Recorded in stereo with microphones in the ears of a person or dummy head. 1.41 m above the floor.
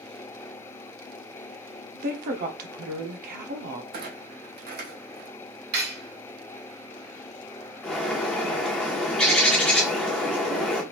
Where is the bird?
10° left (ahead or behind), 1.0 m.